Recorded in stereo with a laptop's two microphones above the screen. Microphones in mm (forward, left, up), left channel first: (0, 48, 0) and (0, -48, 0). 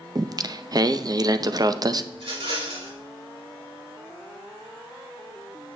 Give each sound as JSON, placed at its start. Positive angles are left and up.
{"t": 0.1, "sound": "singing", "side_deg": -40, "distance_m": 0.6}
{"t": 2.1, "sound": "a rattle", "side_deg": -75, "distance_m": 4.0}